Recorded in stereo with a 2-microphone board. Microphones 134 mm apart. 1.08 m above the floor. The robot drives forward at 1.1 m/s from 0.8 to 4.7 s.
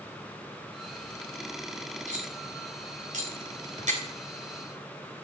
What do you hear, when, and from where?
2.1 s cutlery clinking: 75° right (ahead or behind), 3.5 m; by 4.0 s 65° right (ahead or behind), 3.5 m